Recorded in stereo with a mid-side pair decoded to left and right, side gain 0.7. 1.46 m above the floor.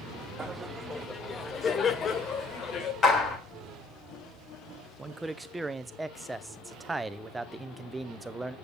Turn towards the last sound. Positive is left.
turn(degrees=-15)